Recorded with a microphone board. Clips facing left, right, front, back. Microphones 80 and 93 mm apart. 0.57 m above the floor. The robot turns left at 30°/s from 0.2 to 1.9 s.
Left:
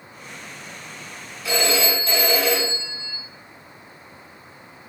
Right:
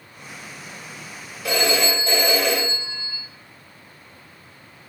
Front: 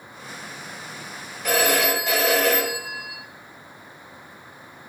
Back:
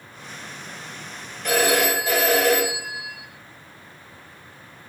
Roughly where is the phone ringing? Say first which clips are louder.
Right 1 dB, back 1 dB; right.